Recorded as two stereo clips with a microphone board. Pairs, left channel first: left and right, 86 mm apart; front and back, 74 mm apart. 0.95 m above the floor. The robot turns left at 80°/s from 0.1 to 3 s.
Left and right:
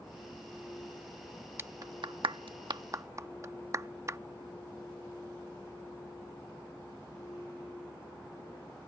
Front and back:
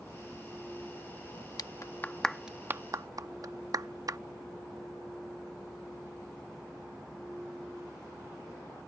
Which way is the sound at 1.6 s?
30° right.